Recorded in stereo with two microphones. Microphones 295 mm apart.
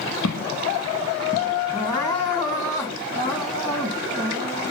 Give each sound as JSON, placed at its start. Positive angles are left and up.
{"t": 0.2, "sound": "footsteps", "side_deg": 70, "distance_m": 0.7}
{"t": 1.7, "sound": "crying", "side_deg": 15, "distance_m": 2.5}